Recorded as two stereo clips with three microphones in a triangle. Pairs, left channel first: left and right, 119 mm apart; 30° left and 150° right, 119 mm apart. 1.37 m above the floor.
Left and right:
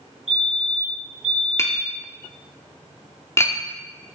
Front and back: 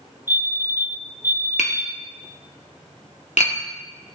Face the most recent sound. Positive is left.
turn(degrees=25)